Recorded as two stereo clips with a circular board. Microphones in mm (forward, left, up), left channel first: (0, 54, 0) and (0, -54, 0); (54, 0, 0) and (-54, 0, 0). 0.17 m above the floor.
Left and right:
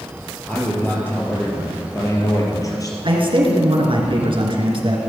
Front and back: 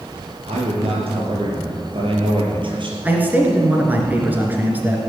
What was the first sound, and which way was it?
A man speaking, 165° left.